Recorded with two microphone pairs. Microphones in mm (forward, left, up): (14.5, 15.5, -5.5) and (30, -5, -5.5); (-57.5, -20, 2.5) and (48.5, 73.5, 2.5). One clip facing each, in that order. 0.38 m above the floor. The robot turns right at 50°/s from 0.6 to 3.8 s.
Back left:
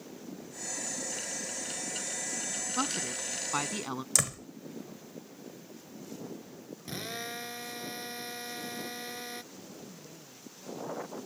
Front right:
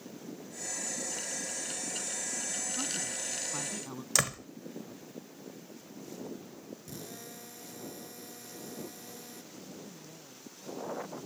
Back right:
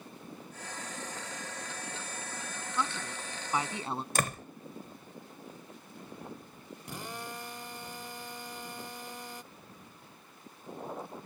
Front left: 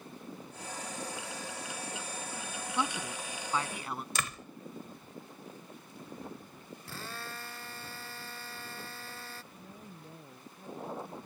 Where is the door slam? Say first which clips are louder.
Front right 3 dB, back right 5 dB; 120° right.